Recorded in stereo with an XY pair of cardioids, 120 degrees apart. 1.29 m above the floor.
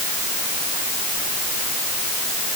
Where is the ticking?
I don't hear ticking.